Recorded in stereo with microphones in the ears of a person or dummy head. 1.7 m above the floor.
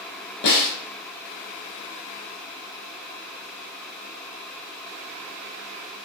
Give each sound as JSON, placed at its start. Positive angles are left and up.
{"t": 0.4, "sound": "a snare drum", "side_deg": 60, "distance_m": 3.0}